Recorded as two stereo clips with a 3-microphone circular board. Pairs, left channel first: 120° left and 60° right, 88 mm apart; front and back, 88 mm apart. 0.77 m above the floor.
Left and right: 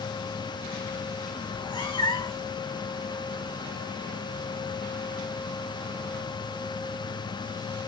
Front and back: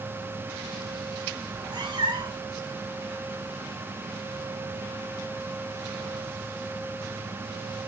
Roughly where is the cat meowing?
Behind left.